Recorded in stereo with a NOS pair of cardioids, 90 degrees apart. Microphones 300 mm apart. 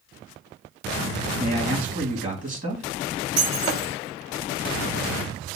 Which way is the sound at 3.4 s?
50° right.